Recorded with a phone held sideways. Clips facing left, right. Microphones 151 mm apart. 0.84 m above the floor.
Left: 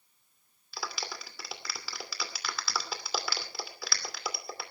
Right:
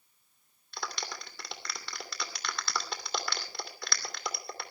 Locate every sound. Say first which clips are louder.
0.7 s a clap: even; 5° left (ahead or behind), 2.5 m